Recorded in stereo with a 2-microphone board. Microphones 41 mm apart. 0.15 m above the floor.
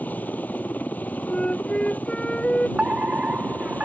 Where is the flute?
25° left (ahead or behind).